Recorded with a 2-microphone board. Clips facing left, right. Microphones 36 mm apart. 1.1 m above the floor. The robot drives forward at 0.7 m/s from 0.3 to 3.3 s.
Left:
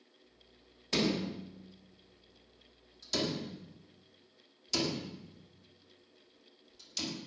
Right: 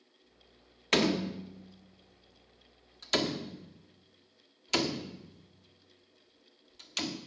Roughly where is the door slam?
Right.